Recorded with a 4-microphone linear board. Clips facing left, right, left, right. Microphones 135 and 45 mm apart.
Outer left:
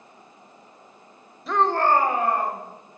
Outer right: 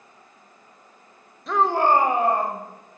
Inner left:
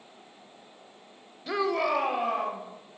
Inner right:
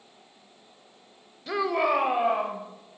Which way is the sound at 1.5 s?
Centre (ahead or behind).